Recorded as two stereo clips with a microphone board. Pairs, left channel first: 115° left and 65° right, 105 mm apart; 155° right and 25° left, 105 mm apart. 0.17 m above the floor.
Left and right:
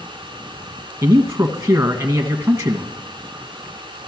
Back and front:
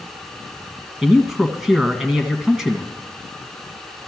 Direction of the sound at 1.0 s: 60° right.